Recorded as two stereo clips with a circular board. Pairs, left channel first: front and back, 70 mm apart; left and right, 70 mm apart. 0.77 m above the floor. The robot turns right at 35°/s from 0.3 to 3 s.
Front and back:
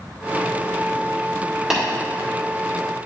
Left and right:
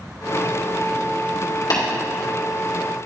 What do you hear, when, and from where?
1.7 s tapping: 95° left, 2 m; by 1.8 s 100° left, 2 m